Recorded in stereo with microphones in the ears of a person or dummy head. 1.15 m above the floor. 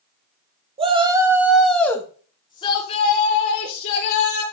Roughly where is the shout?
Right.